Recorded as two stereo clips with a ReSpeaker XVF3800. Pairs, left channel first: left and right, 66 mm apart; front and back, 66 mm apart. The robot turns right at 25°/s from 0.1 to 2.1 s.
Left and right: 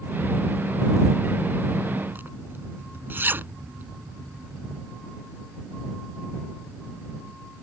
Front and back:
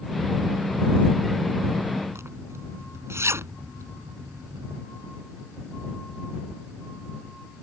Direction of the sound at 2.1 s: 145° right.